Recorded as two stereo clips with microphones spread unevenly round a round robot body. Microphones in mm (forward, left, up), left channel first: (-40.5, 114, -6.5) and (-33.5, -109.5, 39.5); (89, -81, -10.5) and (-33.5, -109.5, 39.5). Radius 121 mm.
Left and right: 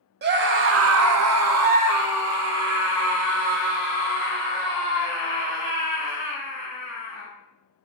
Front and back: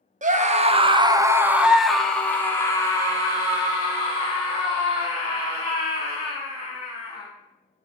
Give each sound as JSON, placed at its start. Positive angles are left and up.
{"t": 0.2, "sound": "a scream", "azimuth_deg": -135, "distance_m": 0.8}